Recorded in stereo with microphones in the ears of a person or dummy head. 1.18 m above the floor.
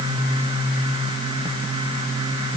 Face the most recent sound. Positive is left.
No sound to turn to.